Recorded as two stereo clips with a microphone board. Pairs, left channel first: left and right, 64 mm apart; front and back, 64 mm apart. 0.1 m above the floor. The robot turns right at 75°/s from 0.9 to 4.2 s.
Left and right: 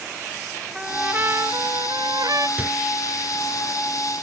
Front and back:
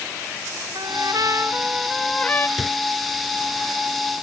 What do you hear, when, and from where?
0.8 s a trumpet: 170° right; by 2.5 s 55° right
2.6 s a microwave: 95° right; by 2.7 s 85° right